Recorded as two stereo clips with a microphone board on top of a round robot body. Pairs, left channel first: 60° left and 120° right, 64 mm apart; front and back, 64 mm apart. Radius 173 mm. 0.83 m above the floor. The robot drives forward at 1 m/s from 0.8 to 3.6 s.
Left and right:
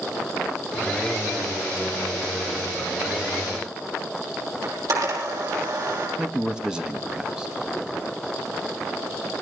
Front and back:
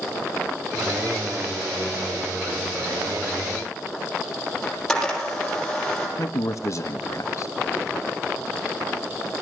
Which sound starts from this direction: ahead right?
A man speaking, at 6.2 s.